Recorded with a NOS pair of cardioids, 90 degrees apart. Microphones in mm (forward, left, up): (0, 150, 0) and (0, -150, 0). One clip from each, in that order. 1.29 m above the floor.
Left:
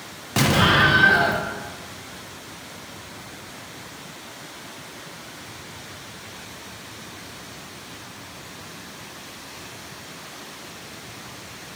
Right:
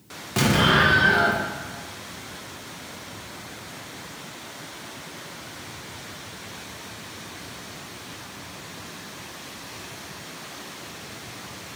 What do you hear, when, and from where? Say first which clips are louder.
0.4 s an explosion: left 2 dB; 15° left, 0.8 m